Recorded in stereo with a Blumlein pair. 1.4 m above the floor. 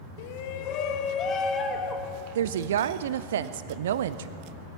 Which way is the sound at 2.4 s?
60° right.